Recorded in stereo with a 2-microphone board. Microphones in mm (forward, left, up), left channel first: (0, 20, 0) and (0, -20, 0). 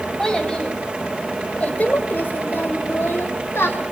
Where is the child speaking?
15° left (ahead or behind), 4.5 m; by 3.8 s 75° left (ahead or behind), 3.5 m.